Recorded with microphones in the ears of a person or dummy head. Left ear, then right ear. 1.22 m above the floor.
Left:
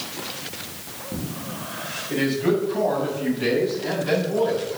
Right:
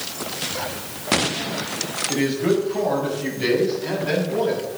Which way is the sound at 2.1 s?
25° right (ahead or behind).